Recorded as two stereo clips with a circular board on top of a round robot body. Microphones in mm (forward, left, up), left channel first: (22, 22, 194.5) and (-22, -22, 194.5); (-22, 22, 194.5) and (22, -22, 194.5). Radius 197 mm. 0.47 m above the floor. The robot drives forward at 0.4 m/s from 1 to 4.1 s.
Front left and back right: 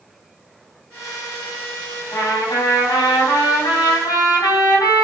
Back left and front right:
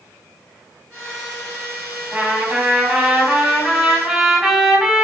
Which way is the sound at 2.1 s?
30° left.